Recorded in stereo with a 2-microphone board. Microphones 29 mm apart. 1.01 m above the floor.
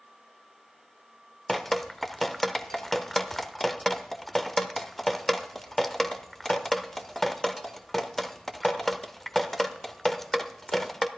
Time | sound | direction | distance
1.5 | dripping | 10° left (ahead or behind) | 0.8 m